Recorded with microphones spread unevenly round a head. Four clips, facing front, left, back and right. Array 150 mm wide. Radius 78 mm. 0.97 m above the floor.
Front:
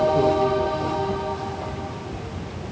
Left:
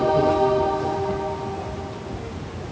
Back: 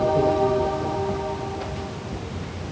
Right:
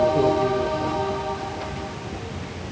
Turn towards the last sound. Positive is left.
No sound to turn to.